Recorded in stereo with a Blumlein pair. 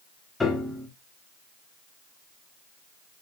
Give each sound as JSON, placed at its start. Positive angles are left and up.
{"t": 0.4, "sound": "a piano", "azimuth_deg": 10, "distance_m": 1.0}